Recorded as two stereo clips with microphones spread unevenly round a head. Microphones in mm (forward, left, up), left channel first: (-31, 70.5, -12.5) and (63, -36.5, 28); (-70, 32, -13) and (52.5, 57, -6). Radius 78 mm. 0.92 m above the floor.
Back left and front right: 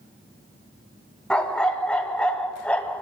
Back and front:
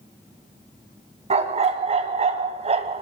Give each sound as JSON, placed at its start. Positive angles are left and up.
{"t": 1.3, "sound": "a dog barking", "azimuth_deg": 45, "distance_m": 2.5}